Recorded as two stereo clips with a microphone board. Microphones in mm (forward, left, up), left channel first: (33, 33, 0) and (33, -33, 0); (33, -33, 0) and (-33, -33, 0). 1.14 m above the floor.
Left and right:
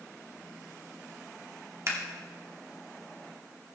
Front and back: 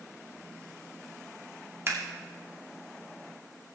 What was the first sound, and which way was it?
Scissors, 130° right.